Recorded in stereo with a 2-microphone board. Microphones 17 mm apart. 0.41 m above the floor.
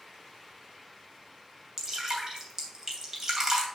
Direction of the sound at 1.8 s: 25° right (ahead or behind).